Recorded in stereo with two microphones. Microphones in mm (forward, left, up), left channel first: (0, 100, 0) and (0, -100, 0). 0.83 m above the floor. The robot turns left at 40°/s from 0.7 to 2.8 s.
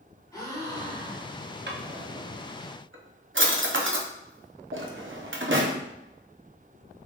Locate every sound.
0.3 s a gasp: 160° left, 0.8 m; by 1.5 s 130° left, 0.8 m
1.7 s a drawer: 60° right (ahead or behind), 0.6 m; by 5.8 s 75° right (ahead or behind), 0.6 m